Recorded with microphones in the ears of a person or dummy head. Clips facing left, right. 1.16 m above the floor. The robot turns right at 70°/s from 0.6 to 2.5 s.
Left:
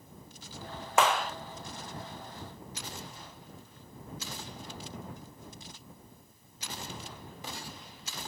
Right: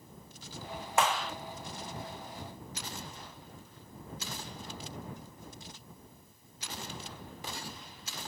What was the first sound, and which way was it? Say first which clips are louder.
A clap: left 3 dB; 50° left (ahead or behind).